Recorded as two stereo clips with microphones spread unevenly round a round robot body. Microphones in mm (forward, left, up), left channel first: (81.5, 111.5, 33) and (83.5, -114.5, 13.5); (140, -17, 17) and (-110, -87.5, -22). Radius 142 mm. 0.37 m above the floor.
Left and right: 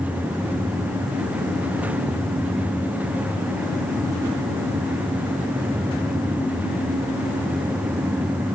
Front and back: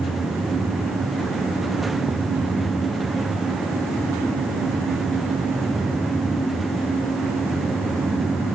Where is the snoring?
I don't hear snoring.